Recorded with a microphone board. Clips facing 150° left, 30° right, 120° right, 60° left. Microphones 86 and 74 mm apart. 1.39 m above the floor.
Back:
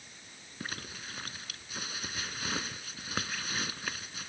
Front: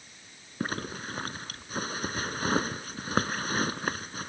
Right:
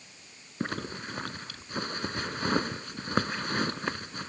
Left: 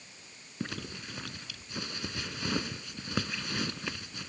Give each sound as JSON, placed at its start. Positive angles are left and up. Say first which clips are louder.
{"t": 0.6, "sound": "a zipper", "louder": "front 9 dB, right 5 dB", "azimuth_deg": -75}